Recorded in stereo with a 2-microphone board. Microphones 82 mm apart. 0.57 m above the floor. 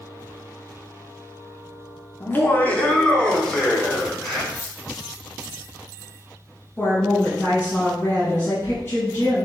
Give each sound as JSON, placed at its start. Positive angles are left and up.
{"t": 2.2, "sound": "laughter", "side_deg": 30, "distance_m": 0.8}
{"t": 4.5, "sound": "keys jangling", "side_deg": 20, "distance_m": 1.8}
{"t": 6.8, "sound": "a woman speaking", "side_deg": 25, "distance_m": 2.0}